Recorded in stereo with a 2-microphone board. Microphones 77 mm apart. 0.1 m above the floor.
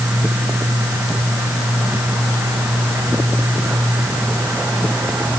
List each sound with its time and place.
Only background noise.